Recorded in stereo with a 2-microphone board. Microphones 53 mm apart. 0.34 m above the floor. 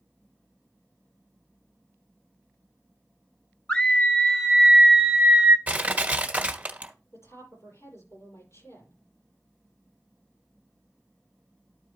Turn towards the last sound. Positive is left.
turn(degrees=65)  # may be behind; listen again after turning